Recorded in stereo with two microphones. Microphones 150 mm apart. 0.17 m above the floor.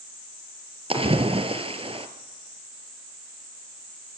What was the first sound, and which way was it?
A splash, 40° right (ahead or behind).